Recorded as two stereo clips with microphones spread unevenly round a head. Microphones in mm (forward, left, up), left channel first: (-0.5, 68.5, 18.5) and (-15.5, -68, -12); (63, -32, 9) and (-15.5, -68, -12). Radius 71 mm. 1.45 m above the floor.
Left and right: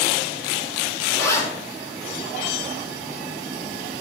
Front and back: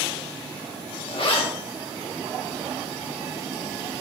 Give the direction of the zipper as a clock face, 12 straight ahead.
12 o'clock.